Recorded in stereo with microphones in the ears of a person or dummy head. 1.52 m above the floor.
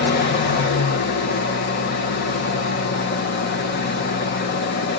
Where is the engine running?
50° left (ahead or behind), 1.0 m.